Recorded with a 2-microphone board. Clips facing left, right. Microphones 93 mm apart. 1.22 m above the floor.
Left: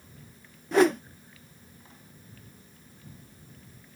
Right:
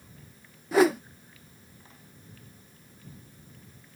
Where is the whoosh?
5° right (ahead or behind).